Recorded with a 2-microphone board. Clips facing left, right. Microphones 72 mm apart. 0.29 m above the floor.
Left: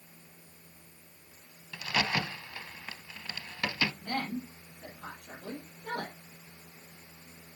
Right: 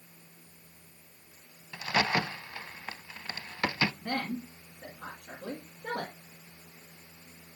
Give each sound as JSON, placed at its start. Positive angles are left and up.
{"t": 1.7, "sound": "a crack", "side_deg": -30, "distance_m": 0.5}
{"t": 4.0, "sound": "a woman speaking", "side_deg": -60, "distance_m": 5.5}